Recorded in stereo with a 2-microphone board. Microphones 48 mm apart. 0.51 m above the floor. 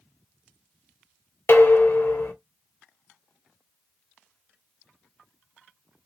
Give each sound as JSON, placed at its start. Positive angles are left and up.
{"t": 1.5, "sound": "dishes clattering", "side_deg": 50, "distance_m": 0.7}